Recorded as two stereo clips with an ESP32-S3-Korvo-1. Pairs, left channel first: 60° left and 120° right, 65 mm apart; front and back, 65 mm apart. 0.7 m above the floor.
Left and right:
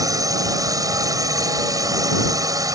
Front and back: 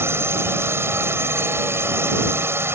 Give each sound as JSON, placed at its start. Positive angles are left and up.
{"t": 0.0, "sound": "a drone", "azimuth_deg": -135}